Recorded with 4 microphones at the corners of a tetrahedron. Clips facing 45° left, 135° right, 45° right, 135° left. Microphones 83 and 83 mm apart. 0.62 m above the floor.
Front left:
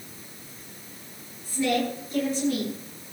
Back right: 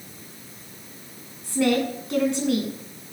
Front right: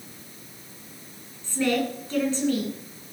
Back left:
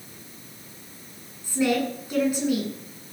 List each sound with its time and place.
1.4 s a woman speaking: 145° right, 8 m